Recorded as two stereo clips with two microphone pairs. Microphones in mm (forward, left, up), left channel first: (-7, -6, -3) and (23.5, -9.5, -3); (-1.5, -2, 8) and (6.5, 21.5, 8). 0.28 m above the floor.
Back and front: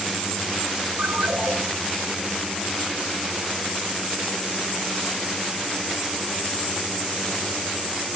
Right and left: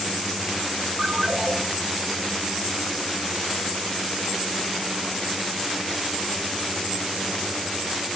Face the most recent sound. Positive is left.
turn(degrees=0)